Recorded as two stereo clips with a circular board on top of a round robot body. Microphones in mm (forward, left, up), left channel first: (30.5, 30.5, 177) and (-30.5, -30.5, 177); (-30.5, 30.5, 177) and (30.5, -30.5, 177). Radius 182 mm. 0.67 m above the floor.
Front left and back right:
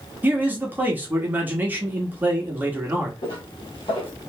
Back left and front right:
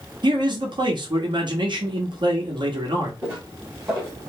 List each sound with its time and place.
0.2 s a man speaking: 65° right, 1.6 m
3.2 s footsteps: 15° left, 2 m